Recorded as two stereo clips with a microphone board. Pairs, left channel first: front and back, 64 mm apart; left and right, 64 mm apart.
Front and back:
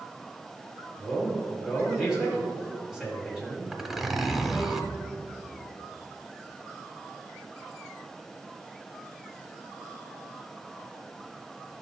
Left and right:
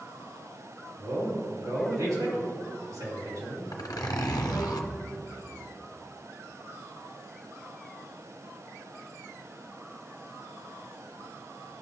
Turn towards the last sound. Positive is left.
turn(degrees=95)